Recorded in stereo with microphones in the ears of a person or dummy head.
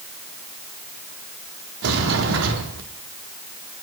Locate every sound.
1.8 s a sliding door: 75° right (ahead or behind), 0.9 m